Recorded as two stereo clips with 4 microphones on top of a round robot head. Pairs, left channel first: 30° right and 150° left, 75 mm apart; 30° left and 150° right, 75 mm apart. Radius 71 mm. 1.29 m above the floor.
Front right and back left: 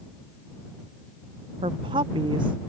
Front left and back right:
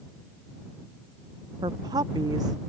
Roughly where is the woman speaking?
Behind.